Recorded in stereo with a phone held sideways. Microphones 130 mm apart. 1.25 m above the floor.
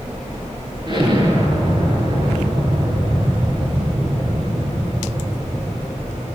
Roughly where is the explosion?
Right.